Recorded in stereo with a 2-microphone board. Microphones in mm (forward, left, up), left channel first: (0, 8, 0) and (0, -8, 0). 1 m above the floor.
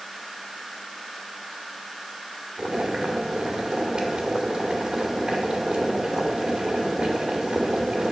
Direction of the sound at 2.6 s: 60° right (ahead or behind).